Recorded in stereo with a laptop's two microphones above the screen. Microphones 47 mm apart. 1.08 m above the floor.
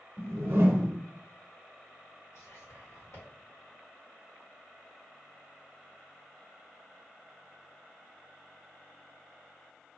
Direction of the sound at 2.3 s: 75° left (ahead or behind).